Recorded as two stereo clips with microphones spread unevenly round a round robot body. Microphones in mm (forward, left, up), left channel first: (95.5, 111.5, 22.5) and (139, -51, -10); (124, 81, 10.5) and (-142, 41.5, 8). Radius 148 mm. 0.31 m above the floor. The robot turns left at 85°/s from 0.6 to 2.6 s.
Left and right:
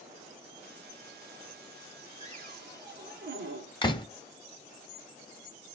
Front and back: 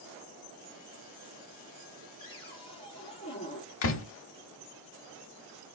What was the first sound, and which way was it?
A cupboard door, 25° right.